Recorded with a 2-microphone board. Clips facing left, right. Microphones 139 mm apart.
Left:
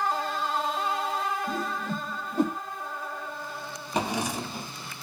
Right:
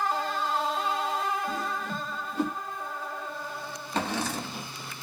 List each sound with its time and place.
1.5 s a whoosh: 45° left (ahead or behind), 1.3 m
3.9 s a drawer: 15° left (ahead or behind), 0.5 m